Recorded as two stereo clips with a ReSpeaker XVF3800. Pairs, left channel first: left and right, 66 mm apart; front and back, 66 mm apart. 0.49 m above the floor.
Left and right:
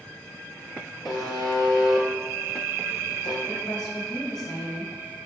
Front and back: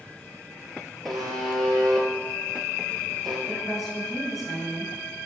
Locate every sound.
1.1 s a buzzer: 90° left, 2.5 m
3.5 s a woman speaking: 95° left, 3.5 m